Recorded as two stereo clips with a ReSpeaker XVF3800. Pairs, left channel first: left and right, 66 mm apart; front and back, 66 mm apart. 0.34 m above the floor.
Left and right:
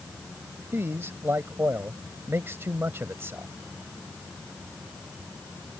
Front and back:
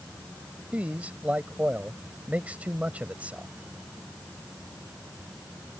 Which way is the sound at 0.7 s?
120° right.